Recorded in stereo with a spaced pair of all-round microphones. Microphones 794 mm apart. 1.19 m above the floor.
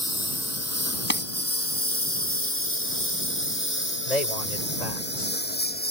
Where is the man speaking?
55° left (ahead or behind).